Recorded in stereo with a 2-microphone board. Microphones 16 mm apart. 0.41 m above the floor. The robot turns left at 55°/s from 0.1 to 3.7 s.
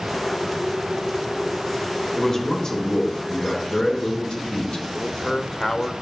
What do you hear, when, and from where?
2.1 s a man speaking: 175° left, 3.5 m; by 4.8 s 90° left, 3.5 m
4.9 s a man speaking: 35° left (ahead or behind), 0.9 m